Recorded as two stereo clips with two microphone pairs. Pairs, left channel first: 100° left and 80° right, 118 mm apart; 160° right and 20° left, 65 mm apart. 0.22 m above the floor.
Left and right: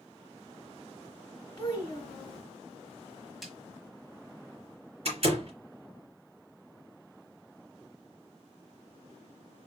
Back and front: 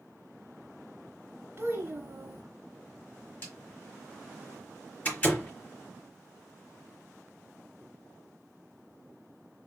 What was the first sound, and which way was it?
A child speaking, 50° left.